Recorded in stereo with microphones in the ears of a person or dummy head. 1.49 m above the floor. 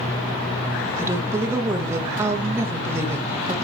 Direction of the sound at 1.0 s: 15° right (ahead or behind).